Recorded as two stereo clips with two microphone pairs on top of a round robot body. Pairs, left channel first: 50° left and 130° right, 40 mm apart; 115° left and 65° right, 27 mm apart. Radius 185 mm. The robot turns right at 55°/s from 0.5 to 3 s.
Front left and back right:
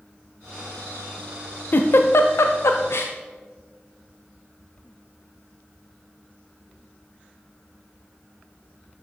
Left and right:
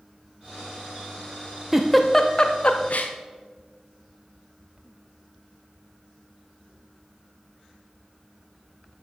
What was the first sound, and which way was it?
A giggle, 10° left.